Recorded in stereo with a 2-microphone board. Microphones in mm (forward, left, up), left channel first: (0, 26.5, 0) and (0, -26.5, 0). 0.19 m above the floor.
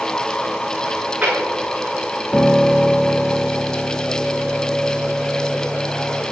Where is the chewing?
20° right (ahead or behind), 5.5 m.